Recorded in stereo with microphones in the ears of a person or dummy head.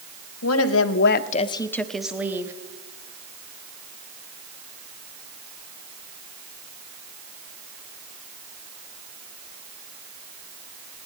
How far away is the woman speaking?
About 1.1 m.